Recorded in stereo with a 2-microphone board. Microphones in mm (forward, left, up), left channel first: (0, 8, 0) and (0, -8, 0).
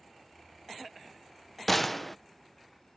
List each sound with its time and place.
1.7 s a gunshot: 10° left (ahead or behind)